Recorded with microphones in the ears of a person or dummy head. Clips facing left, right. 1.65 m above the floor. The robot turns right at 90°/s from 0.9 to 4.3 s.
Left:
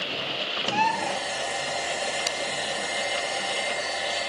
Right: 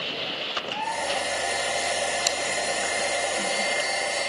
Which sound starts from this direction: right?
Scissors, at 2.3 s.